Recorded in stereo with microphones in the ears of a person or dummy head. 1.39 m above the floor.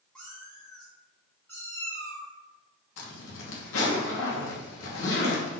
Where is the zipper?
75° left (ahead or behind), 2.5 m.